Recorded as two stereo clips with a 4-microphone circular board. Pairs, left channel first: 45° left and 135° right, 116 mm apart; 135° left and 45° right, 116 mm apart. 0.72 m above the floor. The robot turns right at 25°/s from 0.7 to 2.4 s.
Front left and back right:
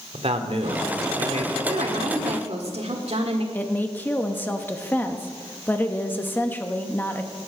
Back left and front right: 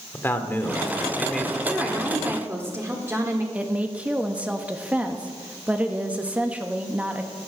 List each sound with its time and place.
0.1 s a man speaking: 155° right, 1.7 m; by 1.6 s 130° right, 1.7 m
1.7 s a woman speaking: 130° right, 1.7 m; by 3.4 s 110° right, 1.7 m
3.5 s a woman speaking: 10° left, 1.0 m